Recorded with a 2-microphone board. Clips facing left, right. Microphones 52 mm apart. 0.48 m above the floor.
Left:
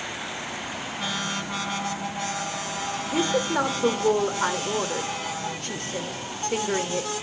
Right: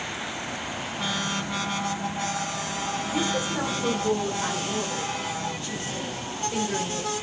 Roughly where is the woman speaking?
Left.